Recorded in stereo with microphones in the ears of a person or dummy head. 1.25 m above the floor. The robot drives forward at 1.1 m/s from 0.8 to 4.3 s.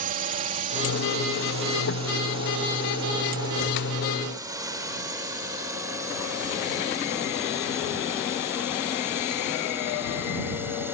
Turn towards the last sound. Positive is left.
turn(degrees=-15)  # may be behind; listen again after turning